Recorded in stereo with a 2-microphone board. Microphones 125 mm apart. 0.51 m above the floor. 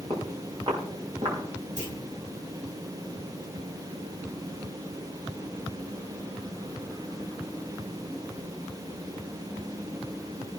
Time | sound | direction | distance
0.1 | footsteps | 45° right (ahead or behind) | 5.5 m
1.8 | a clunk | 80° right | 4 m